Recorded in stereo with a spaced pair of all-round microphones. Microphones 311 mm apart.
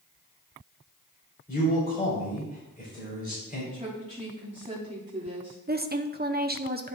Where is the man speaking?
30° left (ahead or behind), 3.5 m.